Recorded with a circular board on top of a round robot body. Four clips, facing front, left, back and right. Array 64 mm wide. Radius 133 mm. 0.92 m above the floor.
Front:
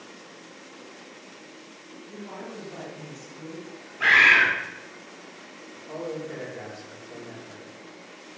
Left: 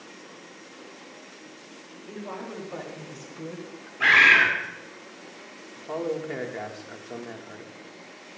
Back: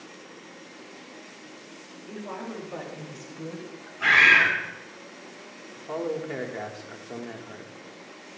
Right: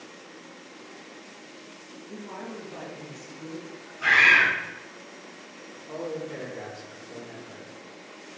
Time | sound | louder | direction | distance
2.1 | a woman speaking | left 2 dB, back 3 dB | 125° left | 4 m
4.0 | a bird | left 2 dB, front 1 dB | 65° left | 4 m
5.8 | a man speaking | left 4 dB, back 3 dB | 125° left | 1.5 m